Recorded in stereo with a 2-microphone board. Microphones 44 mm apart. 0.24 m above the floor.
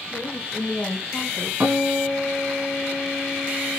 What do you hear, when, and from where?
0.1 s a woman speaking: 35° left (ahead or behind), 1.6 m
1.6 s a guitar: 55° right (ahead or behind), 1.3 m